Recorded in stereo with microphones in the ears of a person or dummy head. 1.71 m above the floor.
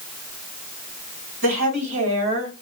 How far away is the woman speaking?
About 1.8 m.